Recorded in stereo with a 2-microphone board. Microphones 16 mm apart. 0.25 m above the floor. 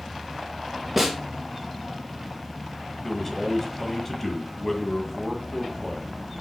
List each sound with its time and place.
1.0 s a snare drum: 10° right (ahead or behind), 2.5 m
3.0 s a man speaking: 15° left (ahead or behind), 1.8 m